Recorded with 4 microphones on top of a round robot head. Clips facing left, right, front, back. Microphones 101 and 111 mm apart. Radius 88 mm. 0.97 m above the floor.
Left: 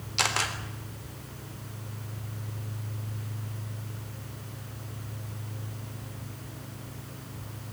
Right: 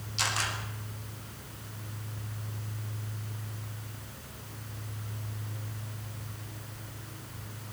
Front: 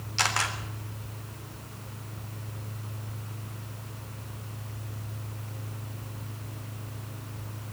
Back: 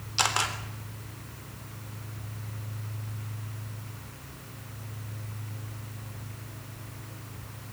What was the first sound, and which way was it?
A camera shutter, 105° left.